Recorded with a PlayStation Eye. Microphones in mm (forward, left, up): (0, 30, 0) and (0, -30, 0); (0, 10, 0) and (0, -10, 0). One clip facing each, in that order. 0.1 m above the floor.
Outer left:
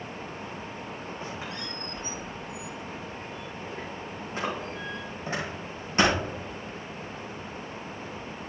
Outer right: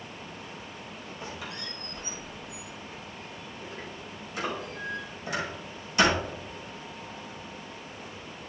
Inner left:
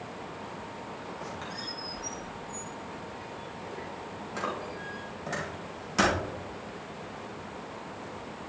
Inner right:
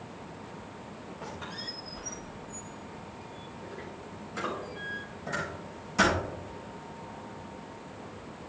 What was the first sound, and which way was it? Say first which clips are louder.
A squeak: outer right 1 dB, inner right 1 dB; 40° left (ahead or behind).